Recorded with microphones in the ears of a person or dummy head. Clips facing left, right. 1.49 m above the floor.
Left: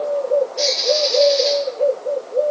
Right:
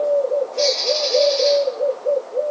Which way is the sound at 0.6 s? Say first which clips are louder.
Left 1 dB; centre (ahead or behind).